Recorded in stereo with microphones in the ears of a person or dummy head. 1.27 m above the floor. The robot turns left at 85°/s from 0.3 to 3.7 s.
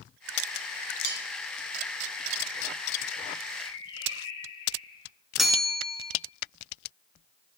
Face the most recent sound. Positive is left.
turn(degrees=0)  # may be behind; listen again after turning